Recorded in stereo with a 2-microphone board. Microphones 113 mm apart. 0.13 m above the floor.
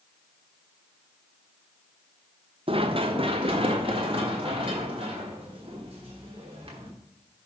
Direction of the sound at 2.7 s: 55° right (ahead or behind).